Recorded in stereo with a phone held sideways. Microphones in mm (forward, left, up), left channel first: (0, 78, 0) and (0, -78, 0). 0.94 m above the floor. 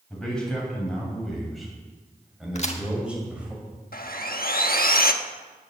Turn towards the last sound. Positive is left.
turn(degrees=75)  # may be behind; listen again after turning